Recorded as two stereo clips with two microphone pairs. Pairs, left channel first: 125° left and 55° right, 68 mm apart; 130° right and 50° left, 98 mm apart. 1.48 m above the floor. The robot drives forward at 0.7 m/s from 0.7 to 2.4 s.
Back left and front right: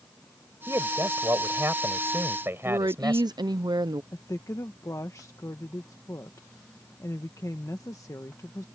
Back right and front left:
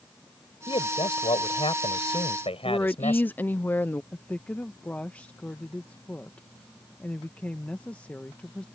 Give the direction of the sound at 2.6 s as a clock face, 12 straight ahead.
2 o'clock.